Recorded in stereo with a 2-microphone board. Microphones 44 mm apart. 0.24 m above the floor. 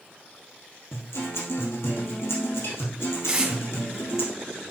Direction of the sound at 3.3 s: 20° right (ahead or behind).